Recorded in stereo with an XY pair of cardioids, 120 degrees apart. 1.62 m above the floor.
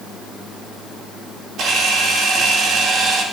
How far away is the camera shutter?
About 4.5 m.